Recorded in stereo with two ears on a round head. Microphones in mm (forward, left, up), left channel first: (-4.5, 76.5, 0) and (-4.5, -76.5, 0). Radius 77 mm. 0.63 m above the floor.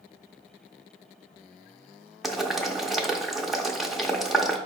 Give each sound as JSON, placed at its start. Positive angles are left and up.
{"t": 2.2, "sound": "boiling", "side_deg": 0, "distance_m": 0.6}